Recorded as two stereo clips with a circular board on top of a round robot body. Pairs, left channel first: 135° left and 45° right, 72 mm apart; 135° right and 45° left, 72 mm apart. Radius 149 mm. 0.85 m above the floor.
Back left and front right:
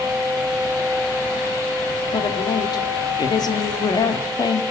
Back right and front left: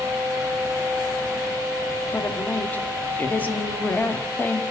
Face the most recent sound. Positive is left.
turn(degrees=155)